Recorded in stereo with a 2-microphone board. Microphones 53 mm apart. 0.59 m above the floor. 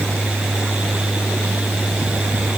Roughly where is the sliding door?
I don't hear a sliding door.